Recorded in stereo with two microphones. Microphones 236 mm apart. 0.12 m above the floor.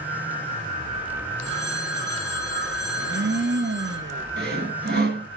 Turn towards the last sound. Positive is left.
turn(degrees=-45)  # may be behind; listen again after turning